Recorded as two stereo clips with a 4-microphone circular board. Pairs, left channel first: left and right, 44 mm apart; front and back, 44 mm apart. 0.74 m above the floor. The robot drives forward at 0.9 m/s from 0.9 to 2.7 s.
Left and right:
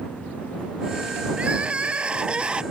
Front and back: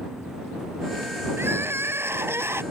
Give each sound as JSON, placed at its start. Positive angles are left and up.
{"t": 1.4, "sound": "crying", "azimuth_deg": -155}